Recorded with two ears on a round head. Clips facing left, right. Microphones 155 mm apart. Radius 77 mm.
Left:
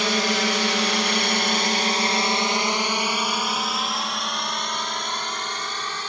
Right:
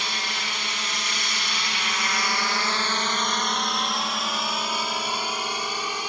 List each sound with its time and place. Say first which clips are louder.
0.0 s a drone: left 11 dB; 60° left (ahead or behind); by 6.1 s 10° right (ahead or behind)